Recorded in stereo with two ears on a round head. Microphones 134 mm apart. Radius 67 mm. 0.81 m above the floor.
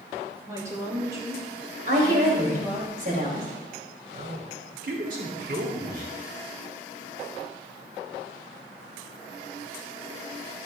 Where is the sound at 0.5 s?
25° right (ahead or behind), 4 m; by 2.9 s 20° right (ahead or behind), 5.5 m.